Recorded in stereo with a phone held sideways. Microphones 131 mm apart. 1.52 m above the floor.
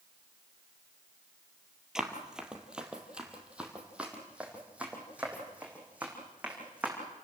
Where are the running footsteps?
5° right (ahead or behind), 2 m; by 6.9 s 10° right (ahead or behind), 6 m.